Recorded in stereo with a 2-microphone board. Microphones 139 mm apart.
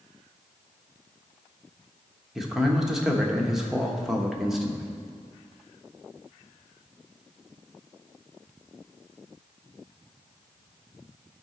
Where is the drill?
No drill in this recording.